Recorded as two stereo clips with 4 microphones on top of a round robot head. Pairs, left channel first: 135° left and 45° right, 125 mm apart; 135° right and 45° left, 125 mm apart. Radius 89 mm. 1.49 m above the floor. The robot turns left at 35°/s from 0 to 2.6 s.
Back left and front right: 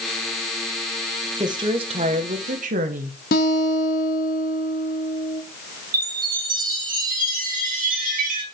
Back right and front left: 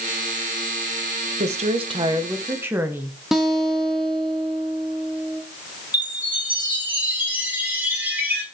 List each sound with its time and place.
1.4 s a woman speaking: 15° left, 1.4 m; by 3.2 s 25° right, 1.4 m
3.3 s a guitar: 135° left, 1.0 m
5.9 s a chime: 30° right, 3 m